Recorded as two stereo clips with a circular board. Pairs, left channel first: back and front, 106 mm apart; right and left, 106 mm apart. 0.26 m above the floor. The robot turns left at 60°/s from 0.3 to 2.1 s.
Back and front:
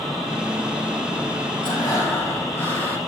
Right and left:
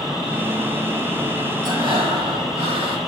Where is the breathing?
140° left, 4.5 m; by 3.0 s 115° left, 4.5 m.